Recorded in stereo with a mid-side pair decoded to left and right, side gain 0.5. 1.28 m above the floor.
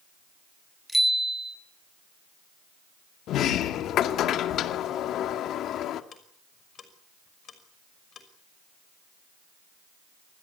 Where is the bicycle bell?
5° right, 7.5 m.